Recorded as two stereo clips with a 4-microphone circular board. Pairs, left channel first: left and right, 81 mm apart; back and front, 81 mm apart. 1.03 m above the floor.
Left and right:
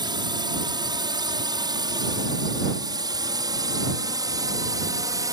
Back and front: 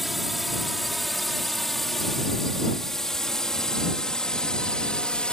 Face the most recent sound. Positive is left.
turn(degrees=-105)